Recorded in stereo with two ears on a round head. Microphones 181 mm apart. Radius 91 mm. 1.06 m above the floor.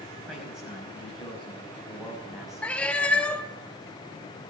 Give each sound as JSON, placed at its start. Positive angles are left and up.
{"t": 0.3, "sound": "a man speaking", "side_deg": 0, "distance_m": 5.5}
{"t": 2.6, "sound": "a cat meowing", "side_deg": 5, "distance_m": 0.7}